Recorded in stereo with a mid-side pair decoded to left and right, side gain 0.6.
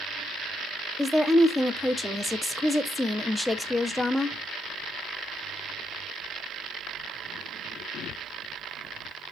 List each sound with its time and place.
1.0 s a woman speaking: straight ahead, 0.6 m